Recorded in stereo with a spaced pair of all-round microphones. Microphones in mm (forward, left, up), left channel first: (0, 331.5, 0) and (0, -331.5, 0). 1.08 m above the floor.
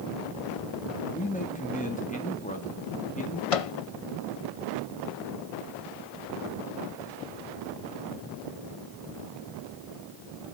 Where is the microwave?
55° left (ahead or behind), 0.7 m.